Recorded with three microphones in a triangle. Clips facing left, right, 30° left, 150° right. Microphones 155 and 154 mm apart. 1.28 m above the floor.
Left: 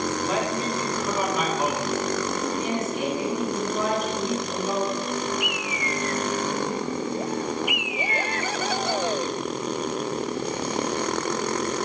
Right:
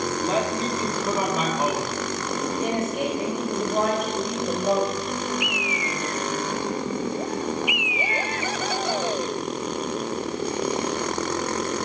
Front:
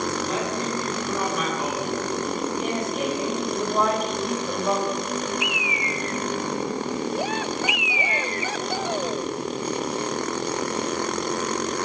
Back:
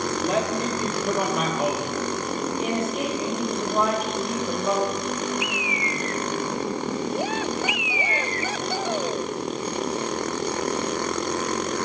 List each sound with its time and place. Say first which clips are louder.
0.2 s a man speaking: right 1 dB, back 3 dB; 150° right, 4 m
2.6 s a woman speaking: right 2 dB, back 1 dB; 60° right, 5 m
5.4 s a bird: right 1 dB, even; 90° left, 0.5 m